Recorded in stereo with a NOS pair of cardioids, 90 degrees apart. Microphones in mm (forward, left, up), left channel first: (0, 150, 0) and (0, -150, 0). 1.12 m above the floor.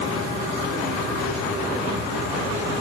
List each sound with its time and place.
Only background noise.